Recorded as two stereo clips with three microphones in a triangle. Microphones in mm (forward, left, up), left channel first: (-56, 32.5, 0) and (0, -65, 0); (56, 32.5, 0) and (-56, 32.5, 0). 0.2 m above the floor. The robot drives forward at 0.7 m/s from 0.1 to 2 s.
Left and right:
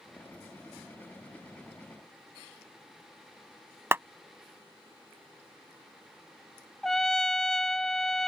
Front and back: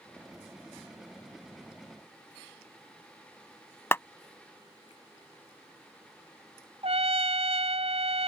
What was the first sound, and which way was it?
A clap, 30° right.